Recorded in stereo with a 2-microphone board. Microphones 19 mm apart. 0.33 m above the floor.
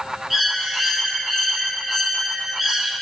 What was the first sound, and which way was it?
A bird, 20° right (ahead or behind).